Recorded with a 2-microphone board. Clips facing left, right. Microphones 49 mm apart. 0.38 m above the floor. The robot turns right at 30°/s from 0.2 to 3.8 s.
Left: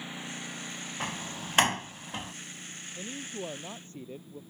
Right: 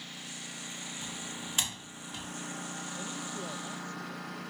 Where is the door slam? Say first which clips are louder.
Left 8 dB; 65° left (ahead or behind); by 2.3 s 35° left (ahead or behind).